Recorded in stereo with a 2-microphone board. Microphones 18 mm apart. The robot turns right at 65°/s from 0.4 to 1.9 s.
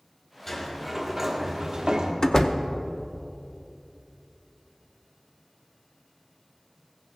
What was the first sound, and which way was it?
A sliding door, 140° left.